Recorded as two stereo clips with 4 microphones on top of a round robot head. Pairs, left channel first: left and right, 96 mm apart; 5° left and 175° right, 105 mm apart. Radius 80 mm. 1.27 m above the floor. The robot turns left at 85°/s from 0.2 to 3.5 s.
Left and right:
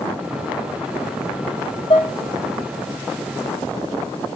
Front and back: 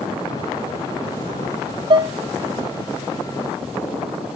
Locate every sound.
1.9 s dishes clattering: 145° left, 0.7 m; by 2.1 s 125° left, 0.7 m